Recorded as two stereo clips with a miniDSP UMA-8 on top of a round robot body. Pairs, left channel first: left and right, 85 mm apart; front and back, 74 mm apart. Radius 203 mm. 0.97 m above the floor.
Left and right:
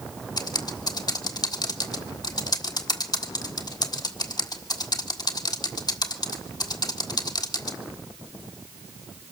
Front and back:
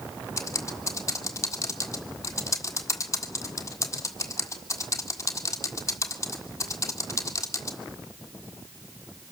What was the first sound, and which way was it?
Typing on a keyboard, 50° left.